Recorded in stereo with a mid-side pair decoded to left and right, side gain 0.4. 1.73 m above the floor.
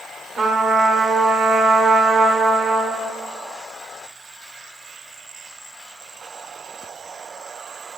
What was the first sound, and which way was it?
A trumpet, 60° right.